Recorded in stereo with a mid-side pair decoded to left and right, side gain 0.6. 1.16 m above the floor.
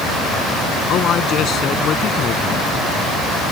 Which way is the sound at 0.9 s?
50° left.